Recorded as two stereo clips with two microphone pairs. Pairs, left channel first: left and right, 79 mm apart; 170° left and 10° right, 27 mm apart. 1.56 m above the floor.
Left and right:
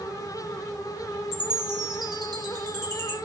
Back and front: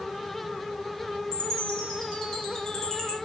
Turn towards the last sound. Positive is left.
turn(degrees=-125)